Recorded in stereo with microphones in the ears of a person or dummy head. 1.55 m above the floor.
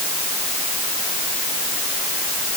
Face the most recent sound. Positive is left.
No sound to turn to.